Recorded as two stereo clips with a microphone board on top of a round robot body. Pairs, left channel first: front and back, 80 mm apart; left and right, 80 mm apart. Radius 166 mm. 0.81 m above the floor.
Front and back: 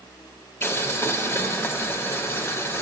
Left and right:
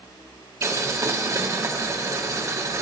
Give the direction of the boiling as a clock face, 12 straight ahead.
2 o'clock.